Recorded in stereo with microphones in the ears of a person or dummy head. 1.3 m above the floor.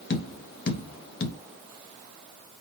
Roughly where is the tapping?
Left.